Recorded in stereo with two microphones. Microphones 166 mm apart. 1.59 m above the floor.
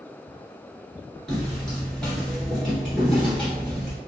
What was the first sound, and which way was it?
Footsteps, 5° left (ahead or behind).